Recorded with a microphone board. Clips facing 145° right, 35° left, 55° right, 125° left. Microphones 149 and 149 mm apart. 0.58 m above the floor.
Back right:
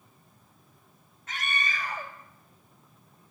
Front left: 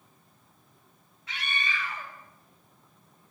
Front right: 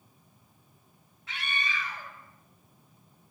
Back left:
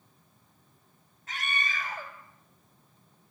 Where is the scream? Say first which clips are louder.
Back right 1 dB, back left 1 dB; 170° left, 4 m; by 3.3 s 155° left, 3 m.